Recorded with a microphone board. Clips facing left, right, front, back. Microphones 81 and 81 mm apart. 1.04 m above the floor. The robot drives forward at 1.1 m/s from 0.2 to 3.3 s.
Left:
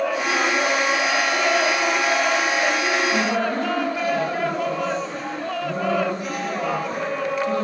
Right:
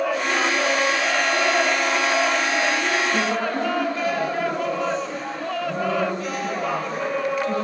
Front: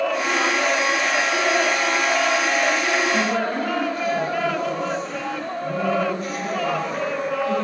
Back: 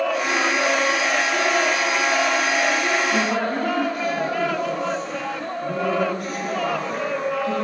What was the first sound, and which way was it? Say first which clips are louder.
A woman speaking: left 1 dB, even; 165° left.